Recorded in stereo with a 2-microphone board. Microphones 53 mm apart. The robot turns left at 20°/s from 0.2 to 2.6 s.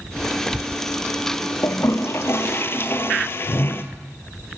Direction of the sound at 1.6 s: 65° left (ahead or behind).